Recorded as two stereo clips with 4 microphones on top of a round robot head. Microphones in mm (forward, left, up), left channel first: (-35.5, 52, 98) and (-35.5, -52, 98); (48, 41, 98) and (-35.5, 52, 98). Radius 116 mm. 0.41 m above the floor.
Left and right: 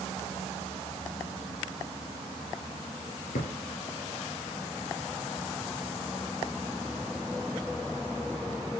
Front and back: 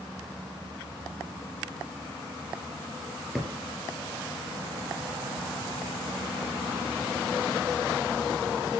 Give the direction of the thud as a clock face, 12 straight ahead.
9 o'clock.